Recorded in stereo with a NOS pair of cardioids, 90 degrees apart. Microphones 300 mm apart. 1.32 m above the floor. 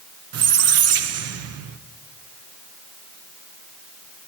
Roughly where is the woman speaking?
No woman speaking in this recording.